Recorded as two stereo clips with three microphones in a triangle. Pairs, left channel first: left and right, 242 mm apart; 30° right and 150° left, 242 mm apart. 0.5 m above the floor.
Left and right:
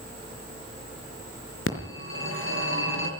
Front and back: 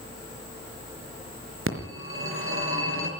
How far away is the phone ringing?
About 4.5 m.